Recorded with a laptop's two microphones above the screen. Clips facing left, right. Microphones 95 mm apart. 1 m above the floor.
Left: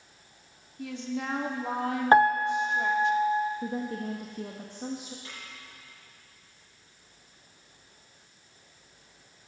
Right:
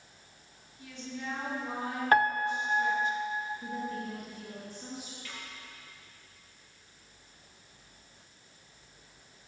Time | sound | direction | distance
0.8 | a woman speaking | 75° left (ahead or behind) | 2.5 m
2.1 | a piano | 25° left (ahead or behind) | 0.6 m
3.6 | a woman speaking | 60° left (ahead or behind) | 1.5 m
5.2 | a snare drum | 30° left (ahead or behind) | 7.5 m